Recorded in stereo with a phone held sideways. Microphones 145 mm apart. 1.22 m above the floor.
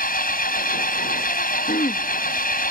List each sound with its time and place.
0.0 s an engine running: 80° left
1.7 s throat clearing: 70° left (ahead or behind)